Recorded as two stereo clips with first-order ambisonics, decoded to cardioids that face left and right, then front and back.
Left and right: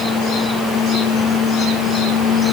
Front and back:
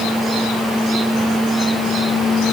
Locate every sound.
Only background noise.